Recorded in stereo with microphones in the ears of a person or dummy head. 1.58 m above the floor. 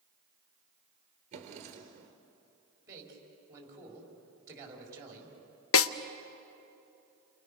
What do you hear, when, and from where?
1.3 s a drawer: 40° right (ahead or behind), 2.5 m
2.9 s a man speaking: 15° right (ahead or behind), 5 m
5.7 s a snare drum: 75° left (ahead or behind), 0.7 m